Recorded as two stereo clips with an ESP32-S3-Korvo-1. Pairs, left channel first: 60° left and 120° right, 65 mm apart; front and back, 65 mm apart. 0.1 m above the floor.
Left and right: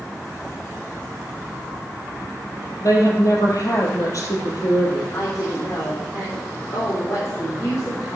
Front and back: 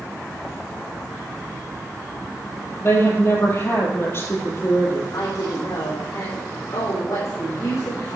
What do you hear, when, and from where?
2.8 s a woman speaking: 45° left, 3 m
5.1 s a woman speaking: 25° left, 4.5 m